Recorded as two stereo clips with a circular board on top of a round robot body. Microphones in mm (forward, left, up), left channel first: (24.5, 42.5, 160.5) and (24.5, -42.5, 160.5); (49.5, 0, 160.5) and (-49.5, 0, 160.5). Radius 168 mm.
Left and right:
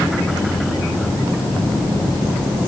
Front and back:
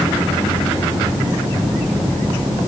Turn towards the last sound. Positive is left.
No sound to turn to.